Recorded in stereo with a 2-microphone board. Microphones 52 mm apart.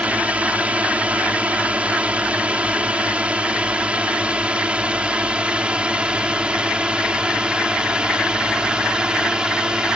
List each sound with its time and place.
0.0 s a drone: 25° right (ahead or behind); by 10.0 s 20° right (ahead or behind)